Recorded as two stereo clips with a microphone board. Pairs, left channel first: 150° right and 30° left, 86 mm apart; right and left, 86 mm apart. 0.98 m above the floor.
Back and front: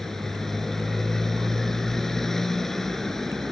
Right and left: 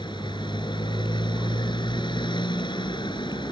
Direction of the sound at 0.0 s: 65° right.